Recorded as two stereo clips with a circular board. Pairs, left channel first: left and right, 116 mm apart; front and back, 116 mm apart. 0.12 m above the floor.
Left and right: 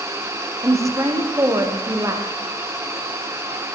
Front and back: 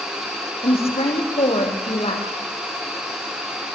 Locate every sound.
0.6 s a woman speaking: 25° right, 6 m